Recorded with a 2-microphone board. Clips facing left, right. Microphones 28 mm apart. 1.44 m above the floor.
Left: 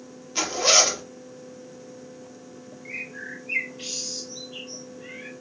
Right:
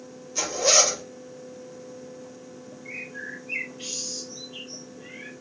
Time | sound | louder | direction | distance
0.3 | a zipper | left 1 dB | 40° left (ahead or behind) | 0.9 m
2.9 | a bird | left 1 dB | 40° left (ahead or behind) | 1.3 m